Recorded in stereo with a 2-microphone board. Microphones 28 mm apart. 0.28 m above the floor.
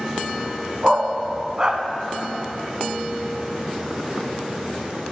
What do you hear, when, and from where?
0.8 s a dog barking: 30° right (ahead or behind), 0.7 m